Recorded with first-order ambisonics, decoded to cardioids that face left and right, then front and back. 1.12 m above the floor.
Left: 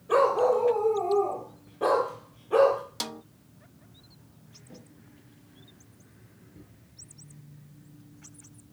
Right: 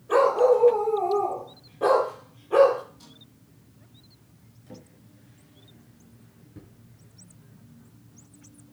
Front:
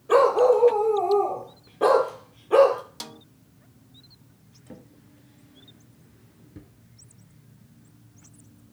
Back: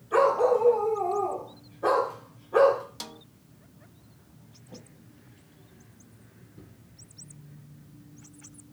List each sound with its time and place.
0.1 s a dog barking: 5° left, 8 m; by 2.8 s straight ahead, 6.5 m
3.0 s a snare drum: 85° left, 0.5 m
4.7 s a drawer: 20° right, 6.5 m